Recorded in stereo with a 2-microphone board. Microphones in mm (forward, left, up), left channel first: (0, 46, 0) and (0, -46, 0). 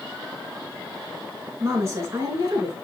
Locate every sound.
1.6 s a woman speaking: 35° right (ahead or behind), 4 m